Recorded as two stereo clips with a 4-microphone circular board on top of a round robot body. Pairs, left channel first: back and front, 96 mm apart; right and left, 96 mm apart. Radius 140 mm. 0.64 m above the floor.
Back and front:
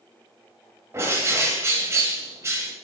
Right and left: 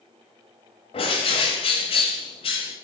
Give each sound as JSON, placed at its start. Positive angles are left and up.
{"t": 0.9, "sound": "a bird", "azimuth_deg": -65, "distance_m": 0.8}